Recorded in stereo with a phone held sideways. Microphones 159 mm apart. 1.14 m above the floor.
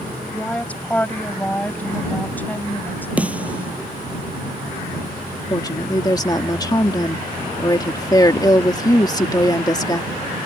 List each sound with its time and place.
0.3 s a woman speaking: 10° left (ahead or behind)
3.2 s a snare drum: 10° right (ahead or behind)
5.5 s a woman speaking: 25° left (ahead or behind)